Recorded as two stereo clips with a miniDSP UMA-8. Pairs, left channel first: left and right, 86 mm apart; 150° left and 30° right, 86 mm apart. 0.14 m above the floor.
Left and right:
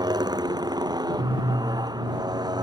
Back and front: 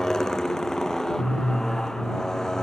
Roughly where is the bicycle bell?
I don't hear a bicycle bell.